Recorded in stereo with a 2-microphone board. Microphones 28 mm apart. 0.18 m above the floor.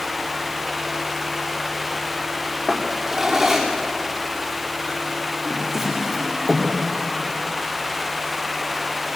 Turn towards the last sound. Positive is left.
turn(degrees=-10)  # may be behind; listen again after turning